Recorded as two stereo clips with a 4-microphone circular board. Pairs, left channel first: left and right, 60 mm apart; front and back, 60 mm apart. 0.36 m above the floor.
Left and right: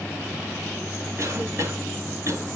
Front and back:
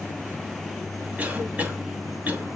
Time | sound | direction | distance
1.2 | a cough | 115° right | 2.5 m